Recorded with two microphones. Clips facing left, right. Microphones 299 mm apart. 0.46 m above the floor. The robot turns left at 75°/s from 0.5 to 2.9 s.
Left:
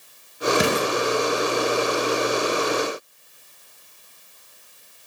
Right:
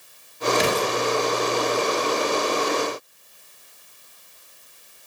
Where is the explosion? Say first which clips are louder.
Left 1 dB; 50° left (ahead or behind), 2.0 m; by 0.9 s 80° left, 2.0 m.